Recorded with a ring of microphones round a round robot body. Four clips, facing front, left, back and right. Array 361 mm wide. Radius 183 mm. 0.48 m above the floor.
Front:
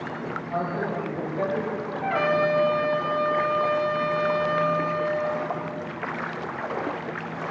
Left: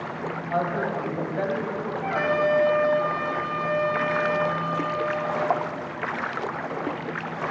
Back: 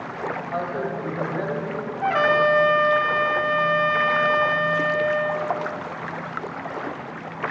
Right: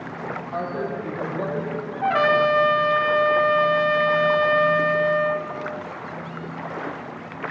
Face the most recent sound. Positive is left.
turn(degrees=-130)